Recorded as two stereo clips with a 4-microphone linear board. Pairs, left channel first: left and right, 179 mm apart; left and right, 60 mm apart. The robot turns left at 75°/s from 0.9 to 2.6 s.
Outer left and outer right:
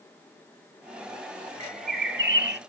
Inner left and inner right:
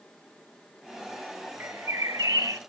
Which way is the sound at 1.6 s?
35° right.